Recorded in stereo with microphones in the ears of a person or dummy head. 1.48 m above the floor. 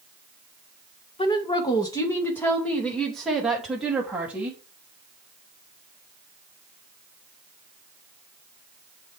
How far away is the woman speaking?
About 1.8 m.